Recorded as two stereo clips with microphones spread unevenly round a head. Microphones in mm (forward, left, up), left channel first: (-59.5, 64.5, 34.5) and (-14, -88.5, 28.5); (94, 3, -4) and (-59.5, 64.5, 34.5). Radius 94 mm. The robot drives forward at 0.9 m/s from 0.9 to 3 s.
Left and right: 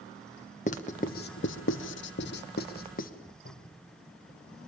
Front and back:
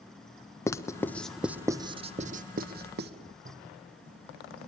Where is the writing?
55° left, 1.3 m; by 3.1 s 140° left, 1.6 m.